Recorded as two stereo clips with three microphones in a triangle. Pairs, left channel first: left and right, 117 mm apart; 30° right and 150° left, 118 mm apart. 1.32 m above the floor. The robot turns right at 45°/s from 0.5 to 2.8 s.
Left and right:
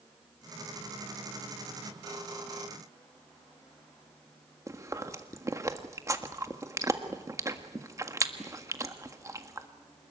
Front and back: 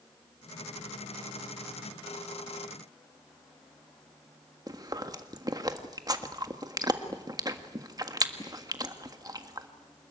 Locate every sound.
4.7 s chewing: 150° right, 1.6 m